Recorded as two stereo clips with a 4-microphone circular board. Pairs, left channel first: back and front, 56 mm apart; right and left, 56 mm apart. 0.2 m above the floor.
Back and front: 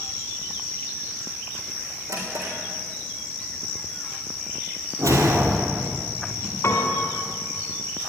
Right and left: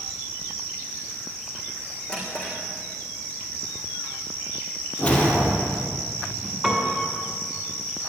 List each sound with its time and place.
2.1 s a drawer: 20° right, 4 m
5.0 s a whoosh: 20° right, 2 m
6.6 s a piano: 170° left, 2.5 m